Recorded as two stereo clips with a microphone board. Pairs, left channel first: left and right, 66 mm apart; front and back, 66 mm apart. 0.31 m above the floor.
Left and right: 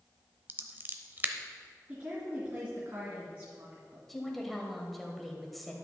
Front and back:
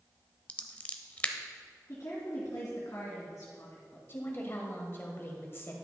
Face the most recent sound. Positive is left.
turn(degrees=5)